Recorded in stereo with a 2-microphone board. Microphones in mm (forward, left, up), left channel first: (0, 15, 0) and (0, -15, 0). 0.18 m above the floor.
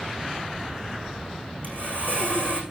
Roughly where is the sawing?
Right.